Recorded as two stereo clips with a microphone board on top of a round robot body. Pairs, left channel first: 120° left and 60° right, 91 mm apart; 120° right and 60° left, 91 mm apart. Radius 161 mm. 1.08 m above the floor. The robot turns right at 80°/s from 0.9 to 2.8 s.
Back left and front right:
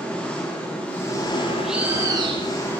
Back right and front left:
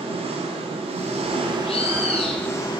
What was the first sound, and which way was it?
An engine running, 45° left.